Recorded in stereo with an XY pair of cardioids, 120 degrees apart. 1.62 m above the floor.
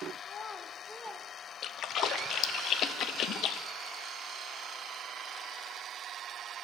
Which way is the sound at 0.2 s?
50° left.